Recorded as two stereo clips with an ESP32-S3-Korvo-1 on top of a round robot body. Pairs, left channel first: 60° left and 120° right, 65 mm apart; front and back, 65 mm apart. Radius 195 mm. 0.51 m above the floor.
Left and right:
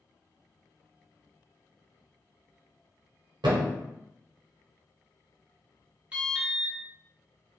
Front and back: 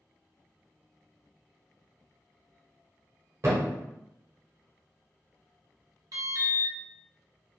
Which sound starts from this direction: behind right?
A thud, at 3.4 s.